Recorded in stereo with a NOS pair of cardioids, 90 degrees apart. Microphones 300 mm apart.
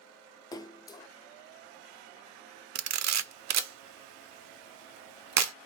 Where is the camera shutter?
65° right, 0.5 m.